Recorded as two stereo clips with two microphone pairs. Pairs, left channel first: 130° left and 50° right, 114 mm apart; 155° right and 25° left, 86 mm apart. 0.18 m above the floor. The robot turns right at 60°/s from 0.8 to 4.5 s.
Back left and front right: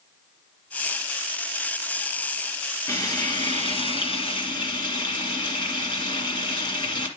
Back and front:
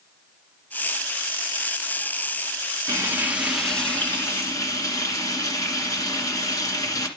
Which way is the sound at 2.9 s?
70° left.